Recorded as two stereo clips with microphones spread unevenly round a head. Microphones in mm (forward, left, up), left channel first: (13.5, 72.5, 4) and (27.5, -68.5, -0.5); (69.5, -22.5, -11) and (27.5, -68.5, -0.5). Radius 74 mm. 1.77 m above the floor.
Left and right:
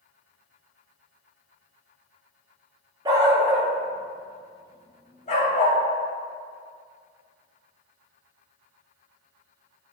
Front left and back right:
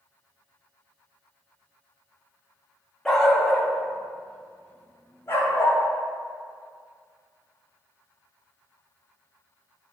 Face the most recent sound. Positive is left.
turn(degrees=110)